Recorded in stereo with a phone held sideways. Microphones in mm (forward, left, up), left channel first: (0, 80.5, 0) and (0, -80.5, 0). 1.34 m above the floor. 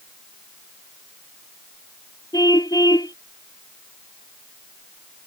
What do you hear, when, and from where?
2.3 s a car horn: 25° left (ahead or behind)